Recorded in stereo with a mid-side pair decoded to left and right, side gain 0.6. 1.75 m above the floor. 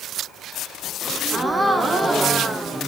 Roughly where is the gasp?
Ahead.